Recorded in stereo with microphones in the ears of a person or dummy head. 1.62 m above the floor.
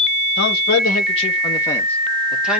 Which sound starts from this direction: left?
A man speaking, at 0.4 s.